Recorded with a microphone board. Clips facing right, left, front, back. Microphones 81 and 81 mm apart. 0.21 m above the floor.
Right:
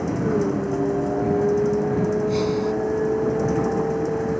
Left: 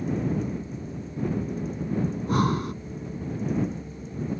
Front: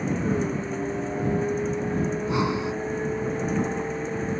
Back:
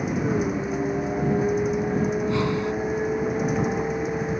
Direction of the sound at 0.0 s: 100° right.